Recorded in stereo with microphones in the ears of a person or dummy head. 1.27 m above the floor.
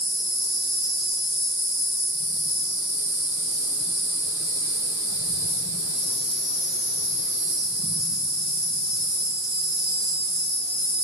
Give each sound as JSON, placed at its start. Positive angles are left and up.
{"t": 0.0, "sound": "an insect", "side_deg": -25, "distance_m": 1.4}